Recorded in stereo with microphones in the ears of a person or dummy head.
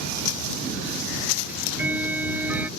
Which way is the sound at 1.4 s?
10° right (ahead or behind).